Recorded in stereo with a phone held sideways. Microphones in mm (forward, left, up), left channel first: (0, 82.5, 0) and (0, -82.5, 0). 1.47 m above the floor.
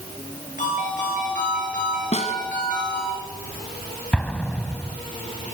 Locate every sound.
0.6 s a ringtone: 50° left (ahead or behind), 9 m
2.1 s a snare drum: 45° left (ahead or behind), 1.9 m
4.1 s an explosion: 10° left (ahead or behind), 1.5 m